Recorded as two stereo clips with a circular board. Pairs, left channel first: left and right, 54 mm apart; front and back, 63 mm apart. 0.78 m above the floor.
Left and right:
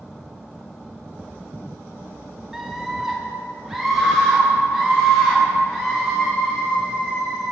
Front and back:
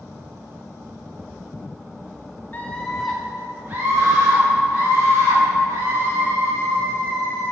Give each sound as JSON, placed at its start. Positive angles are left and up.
{"t": 2.5, "sound": "a scream", "azimuth_deg": -20, "distance_m": 0.9}